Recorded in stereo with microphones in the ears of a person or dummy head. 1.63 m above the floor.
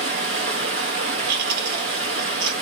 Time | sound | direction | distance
0.0 | running water | 40° right (ahead or behind) | 1.2 m
1.3 | chewing | 60° right (ahead or behind) | 4 m